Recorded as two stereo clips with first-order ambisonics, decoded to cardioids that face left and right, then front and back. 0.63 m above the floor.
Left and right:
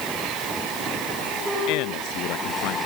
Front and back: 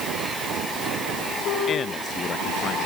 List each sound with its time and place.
1.7 s a man speaking: 65° left